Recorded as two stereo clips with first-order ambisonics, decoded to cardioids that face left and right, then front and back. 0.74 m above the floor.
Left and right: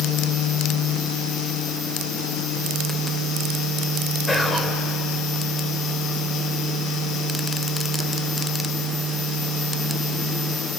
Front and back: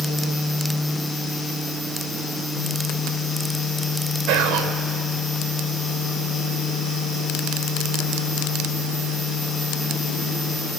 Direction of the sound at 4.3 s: 170° left.